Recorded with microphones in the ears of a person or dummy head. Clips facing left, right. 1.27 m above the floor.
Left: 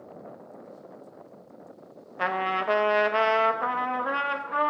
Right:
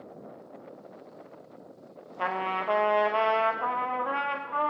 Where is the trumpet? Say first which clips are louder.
Left 3 dB; 30° left (ahead or behind), 0.9 m.